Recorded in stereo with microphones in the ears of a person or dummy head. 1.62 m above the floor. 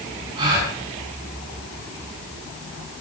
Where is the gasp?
30° right (ahead or behind), 6.5 m.